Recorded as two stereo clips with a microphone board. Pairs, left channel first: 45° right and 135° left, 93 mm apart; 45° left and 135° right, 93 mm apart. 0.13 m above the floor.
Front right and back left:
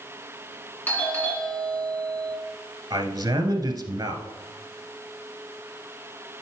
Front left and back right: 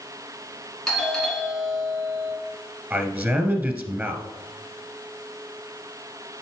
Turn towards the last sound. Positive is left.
turn(degrees=165)